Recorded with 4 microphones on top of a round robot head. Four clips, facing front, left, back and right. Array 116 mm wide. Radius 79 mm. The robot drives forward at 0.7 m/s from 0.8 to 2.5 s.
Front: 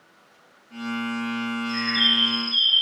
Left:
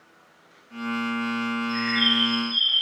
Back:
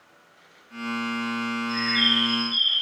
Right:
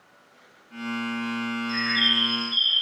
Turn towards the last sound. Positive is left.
turn(degrees=-140)